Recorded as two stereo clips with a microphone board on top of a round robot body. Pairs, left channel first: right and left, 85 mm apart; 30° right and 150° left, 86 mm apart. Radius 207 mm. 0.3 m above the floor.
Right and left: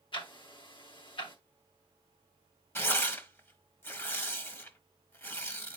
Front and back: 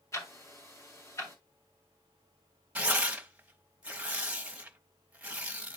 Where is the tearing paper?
140° right, 1.3 m.